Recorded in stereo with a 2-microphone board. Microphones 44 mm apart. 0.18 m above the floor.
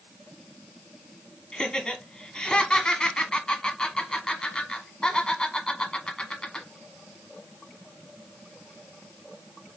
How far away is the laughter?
About 1.1 m.